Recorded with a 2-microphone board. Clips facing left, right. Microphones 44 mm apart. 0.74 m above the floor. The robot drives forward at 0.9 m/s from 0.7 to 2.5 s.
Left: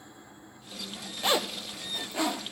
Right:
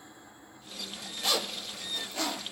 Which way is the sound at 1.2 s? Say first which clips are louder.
Left 4 dB; 30° left (ahead or behind).